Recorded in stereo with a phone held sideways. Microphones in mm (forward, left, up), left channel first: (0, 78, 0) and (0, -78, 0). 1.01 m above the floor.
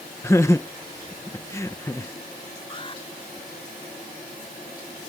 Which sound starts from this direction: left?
An alarm, at 2.7 s.